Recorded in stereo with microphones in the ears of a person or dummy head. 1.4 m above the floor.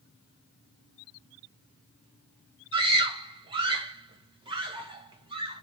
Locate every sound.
2.7 s a scream: 25° right (ahead or behind), 1.1 m